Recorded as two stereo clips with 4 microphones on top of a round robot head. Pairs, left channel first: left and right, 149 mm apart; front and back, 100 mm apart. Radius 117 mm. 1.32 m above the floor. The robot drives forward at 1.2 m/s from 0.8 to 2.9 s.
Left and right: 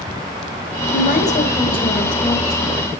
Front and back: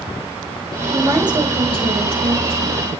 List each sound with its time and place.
0.9 s a woman speaking: 110° left, 1.0 m; by 2.9 s 160° left, 3 m